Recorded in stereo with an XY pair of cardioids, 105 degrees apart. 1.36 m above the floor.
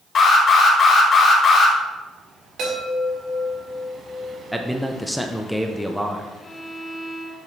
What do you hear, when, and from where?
0.1 s an alarm: 50° left, 2 m
2.6 s a chime: 65° right, 4 m
4.5 s a man speaking: straight ahead, 0.7 m
6.4 s a violin: 15° left, 1.7 m